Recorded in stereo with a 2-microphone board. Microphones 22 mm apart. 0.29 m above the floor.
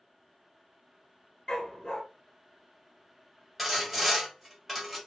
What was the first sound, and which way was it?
A dog barking, 30° left (ahead or behind).